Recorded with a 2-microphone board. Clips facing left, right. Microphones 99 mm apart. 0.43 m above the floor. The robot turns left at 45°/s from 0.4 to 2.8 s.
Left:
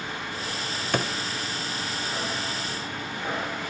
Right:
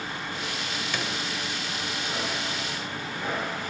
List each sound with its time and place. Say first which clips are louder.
0.9 s a drawer: left 7 dB; 50° left (ahead or behind), 1.0 m; by 1.1 s 45° left (ahead or behind), 1.0 m